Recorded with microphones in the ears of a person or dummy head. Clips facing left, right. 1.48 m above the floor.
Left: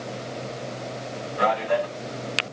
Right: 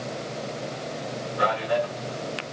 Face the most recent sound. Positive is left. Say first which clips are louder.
# left 2 dB
turn(degrees=65)  # may be behind; listen again after turning